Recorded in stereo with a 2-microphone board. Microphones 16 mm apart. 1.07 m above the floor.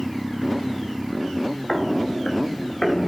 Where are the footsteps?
50° left (ahead or behind), 2.5 m; by 3.1 s 65° left (ahead or behind), 3.5 m.